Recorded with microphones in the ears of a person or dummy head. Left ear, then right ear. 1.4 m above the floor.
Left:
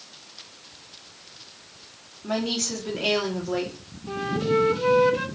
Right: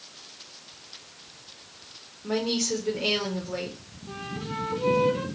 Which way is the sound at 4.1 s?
40° left (ahead or behind).